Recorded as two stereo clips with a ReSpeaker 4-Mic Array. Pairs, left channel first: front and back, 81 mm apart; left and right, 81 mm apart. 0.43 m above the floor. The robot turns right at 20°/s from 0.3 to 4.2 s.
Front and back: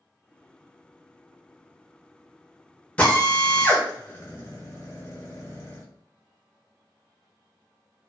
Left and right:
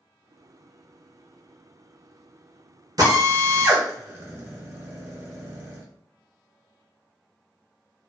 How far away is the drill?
About 0.7 m.